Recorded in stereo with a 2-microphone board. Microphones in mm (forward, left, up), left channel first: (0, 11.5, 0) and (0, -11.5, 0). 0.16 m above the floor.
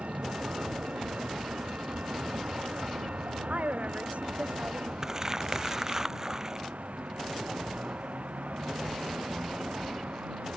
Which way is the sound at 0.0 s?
75° right (ahead or behind).